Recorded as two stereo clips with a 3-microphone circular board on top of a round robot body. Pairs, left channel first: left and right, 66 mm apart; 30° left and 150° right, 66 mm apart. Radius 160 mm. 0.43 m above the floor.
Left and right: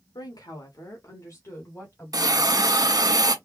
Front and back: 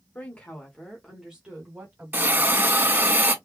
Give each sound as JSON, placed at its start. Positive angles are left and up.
{"t": 0.1, "sound": "a woman speaking", "azimuth_deg": 95, "distance_m": 1.7}
{"t": 2.1, "sound": "a hiss", "azimuth_deg": -95, "distance_m": 1.7}